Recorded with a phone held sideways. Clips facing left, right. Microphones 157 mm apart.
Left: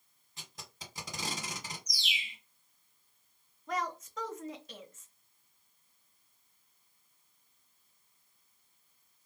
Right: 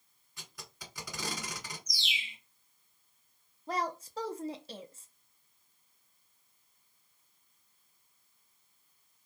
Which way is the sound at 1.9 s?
30° right (ahead or behind).